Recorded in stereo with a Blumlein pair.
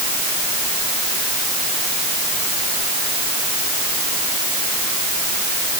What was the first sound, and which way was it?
Only background noise.